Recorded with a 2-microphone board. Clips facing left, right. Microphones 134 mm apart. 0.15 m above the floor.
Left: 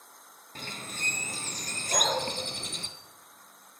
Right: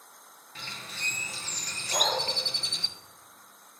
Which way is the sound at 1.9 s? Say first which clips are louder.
Even; 80° left.